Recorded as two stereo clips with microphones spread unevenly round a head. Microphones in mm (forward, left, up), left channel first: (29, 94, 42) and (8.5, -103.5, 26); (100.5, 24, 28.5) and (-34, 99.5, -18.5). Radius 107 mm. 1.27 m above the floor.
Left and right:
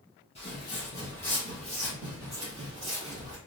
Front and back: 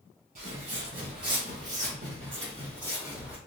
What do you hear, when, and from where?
0.3 s footsteps: 130° left, 1.7 m; by 3.4 s 115° right, 1.4 m